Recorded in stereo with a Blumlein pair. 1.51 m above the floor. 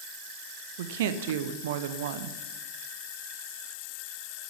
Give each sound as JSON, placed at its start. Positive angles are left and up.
{"t": 0.8, "sound": "a woman speaking", "azimuth_deg": -55, "distance_m": 0.9}